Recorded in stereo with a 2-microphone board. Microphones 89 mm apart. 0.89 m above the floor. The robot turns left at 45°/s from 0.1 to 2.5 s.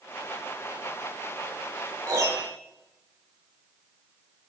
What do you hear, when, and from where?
2.1 s a piano: 40° right (ahead or behind), 1.2 m; by 2.5 s 60° right (ahead or behind), 1.2 m